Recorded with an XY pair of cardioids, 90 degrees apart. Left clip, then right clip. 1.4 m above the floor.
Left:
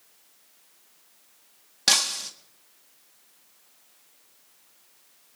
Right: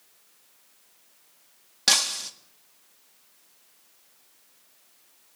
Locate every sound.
1.9 s breaking glass: 5° right, 1.7 m